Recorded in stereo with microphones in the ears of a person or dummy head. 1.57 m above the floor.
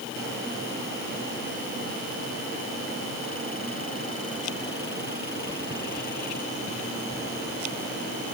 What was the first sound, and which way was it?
Only background noise.